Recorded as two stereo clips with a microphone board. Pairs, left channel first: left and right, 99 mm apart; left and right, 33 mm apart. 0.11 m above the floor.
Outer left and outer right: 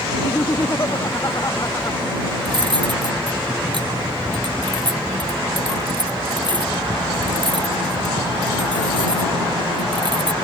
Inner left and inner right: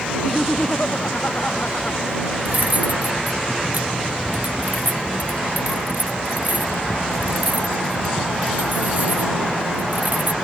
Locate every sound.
0.1 s laughter: 40° left (ahead or behind); by 2.0 s 35° left (ahead or behind)
2.5 s cutlery clinking: 50° right (ahead or behind)